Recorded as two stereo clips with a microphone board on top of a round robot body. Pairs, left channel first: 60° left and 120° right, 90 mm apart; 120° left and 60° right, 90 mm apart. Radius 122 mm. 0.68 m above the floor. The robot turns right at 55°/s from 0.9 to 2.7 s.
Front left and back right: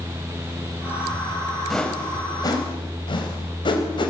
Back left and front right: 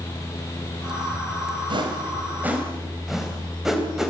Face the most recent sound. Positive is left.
turn(degrees=25)